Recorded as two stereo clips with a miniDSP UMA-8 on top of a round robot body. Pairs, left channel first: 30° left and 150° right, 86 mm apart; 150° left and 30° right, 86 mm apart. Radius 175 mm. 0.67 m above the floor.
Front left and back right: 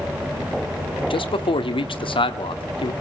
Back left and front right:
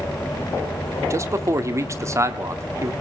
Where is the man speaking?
25° left, 1.8 m.